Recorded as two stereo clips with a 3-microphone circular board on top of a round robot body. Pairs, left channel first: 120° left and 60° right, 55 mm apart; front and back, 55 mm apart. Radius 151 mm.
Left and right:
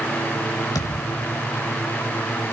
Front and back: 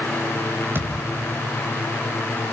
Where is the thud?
125° left, 1.3 m.